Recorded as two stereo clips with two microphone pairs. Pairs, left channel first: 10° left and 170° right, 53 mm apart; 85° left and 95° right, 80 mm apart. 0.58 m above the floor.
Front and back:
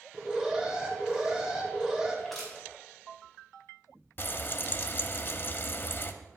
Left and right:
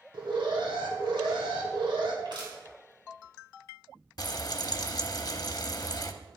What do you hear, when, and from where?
0.1 s an alarm: 95° right, 1.5 m
2.2 s crushing: 75° right, 3.5 m
4.2 s frying: 50° left, 0.6 m